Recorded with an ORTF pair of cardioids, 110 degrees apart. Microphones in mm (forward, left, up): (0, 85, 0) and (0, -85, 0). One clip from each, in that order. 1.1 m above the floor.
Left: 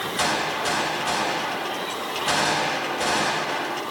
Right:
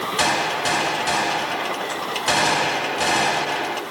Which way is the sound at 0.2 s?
30° right.